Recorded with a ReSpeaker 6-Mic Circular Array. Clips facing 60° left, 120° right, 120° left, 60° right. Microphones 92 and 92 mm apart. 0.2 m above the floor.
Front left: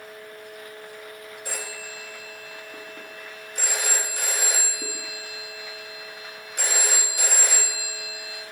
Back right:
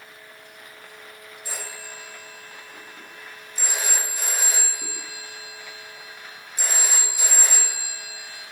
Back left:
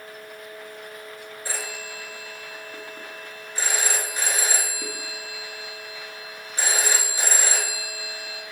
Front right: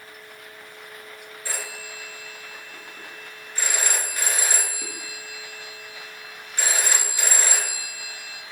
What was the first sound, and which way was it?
A phone ringing, 50° left.